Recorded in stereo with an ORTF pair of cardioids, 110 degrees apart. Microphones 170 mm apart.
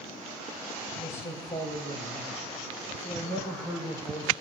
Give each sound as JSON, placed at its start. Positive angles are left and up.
{"t": 1.0, "sound": "a man speaking", "azimuth_deg": 25, "distance_m": 7.5}